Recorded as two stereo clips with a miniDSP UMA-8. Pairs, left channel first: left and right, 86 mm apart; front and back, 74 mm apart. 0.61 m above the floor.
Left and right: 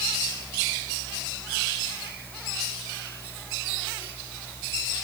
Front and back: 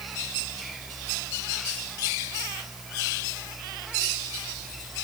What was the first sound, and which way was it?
Only background noise.